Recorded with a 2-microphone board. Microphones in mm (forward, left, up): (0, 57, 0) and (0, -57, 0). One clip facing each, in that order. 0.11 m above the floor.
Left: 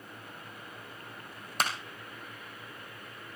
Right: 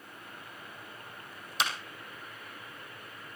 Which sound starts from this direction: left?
A clap, at 1.6 s.